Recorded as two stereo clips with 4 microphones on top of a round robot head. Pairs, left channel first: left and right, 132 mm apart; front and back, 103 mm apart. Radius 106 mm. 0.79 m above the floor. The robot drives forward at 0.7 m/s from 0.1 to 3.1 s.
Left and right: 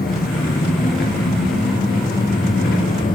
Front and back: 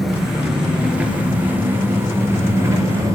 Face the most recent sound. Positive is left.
turn(degrees=120)